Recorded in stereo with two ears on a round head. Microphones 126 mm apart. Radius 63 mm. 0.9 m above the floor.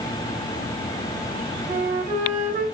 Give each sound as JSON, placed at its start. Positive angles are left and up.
{"t": 1.7, "sound": "a flute", "side_deg": -55, "distance_m": 1.6}